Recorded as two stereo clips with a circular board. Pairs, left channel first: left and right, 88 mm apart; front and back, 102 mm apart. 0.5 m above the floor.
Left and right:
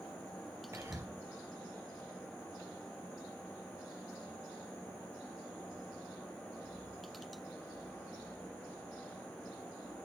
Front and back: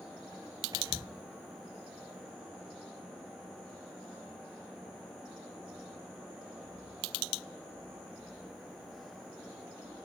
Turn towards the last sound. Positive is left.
turn(degrees=-140)